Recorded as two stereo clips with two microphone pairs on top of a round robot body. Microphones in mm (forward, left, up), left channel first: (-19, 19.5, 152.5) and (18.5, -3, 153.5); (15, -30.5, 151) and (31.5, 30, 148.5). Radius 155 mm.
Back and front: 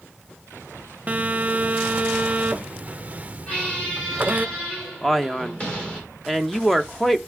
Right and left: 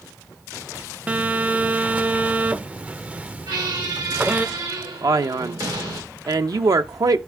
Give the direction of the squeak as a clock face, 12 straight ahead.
10 o'clock.